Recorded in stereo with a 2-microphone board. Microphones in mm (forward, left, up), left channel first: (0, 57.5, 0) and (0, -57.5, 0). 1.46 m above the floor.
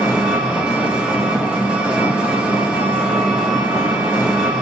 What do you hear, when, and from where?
0.0 s an engine running: 10° right (ahead or behind), 1.4 m